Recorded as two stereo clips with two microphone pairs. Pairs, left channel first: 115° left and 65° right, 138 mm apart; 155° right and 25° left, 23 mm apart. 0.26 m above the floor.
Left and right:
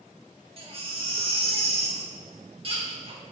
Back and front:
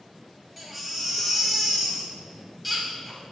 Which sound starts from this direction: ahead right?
A baby crying, at 0.6 s.